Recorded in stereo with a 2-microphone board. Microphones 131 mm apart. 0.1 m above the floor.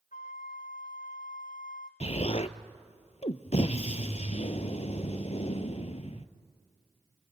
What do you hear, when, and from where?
0.1 s a flute: 75° left (ahead or behind), 1.1 m
2.0 s an explosion: 55° left (ahead or behind), 0.8 m